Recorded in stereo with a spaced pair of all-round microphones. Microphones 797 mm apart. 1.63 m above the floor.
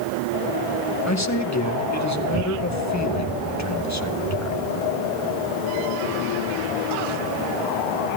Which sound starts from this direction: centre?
A man speaking, at 1.1 s.